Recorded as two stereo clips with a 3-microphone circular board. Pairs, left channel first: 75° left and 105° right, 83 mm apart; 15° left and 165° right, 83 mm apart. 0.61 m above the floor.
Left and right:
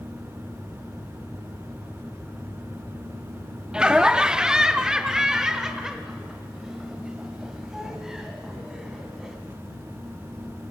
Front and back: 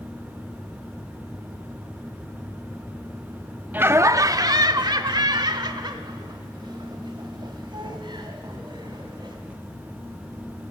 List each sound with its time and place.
3.7 s laughter: 165° right, 0.6 m; by 9.3 s 170° left, 4.5 m